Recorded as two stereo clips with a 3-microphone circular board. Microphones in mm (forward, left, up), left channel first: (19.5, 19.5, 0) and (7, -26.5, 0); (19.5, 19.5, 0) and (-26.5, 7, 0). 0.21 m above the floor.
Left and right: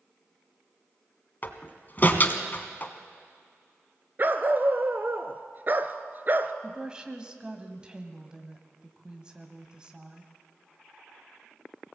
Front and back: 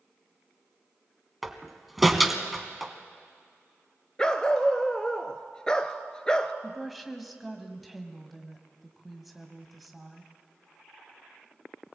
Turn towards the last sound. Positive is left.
turn(degrees=-80)